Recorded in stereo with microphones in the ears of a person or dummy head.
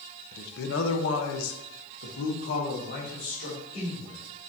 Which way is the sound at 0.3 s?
50° left (ahead or behind).